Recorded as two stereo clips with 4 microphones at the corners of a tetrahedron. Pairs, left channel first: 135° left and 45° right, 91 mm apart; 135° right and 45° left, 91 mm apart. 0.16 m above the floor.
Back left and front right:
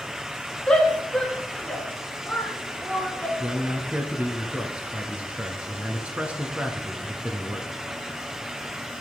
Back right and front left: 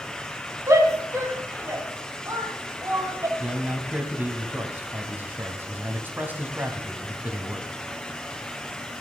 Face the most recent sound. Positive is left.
turn(degrees=10)